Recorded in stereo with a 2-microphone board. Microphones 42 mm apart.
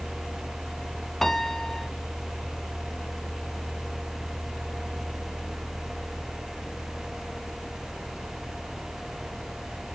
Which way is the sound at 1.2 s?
10° left (ahead or behind).